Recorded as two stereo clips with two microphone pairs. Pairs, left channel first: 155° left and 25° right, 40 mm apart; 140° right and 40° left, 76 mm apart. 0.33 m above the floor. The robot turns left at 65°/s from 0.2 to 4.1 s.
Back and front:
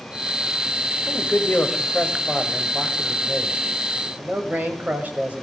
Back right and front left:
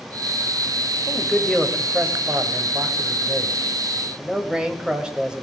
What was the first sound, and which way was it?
A man speaking, 170° left.